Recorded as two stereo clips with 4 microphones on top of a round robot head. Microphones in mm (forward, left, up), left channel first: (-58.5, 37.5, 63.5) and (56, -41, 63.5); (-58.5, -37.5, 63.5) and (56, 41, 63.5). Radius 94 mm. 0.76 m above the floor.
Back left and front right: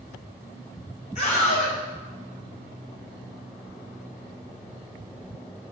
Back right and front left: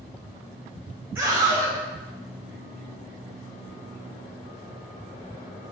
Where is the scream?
110° left, 5 m.